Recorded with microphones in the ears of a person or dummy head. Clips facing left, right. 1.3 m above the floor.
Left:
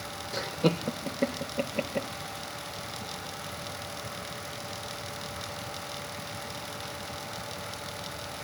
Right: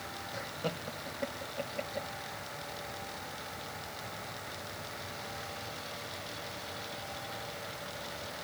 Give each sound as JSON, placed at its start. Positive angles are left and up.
{"t": 0.3, "sound": "laughter", "side_deg": 75}